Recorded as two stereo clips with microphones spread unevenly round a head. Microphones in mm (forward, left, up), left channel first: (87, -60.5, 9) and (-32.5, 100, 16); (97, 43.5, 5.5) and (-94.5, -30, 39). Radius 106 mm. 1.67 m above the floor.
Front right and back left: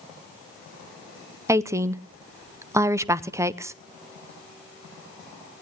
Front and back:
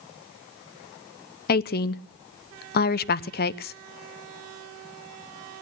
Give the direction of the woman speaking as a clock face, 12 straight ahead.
10 o'clock.